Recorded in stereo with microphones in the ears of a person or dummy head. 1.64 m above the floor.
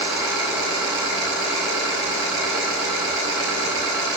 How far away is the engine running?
About 5 m.